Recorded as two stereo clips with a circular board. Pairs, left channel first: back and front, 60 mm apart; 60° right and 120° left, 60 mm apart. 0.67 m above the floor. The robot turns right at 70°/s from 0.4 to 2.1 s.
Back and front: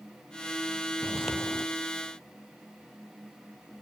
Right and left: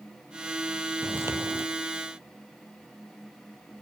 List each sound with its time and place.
1.0 s footsteps: 65° left, 1.3 m; by 1.7 s 110° left, 1.3 m